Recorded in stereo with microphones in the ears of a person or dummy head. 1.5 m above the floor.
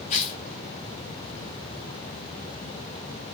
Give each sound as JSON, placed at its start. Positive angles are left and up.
{"t": 0.1, "sound": "tearing paper", "side_deg": 40, "distance_m": 4.0}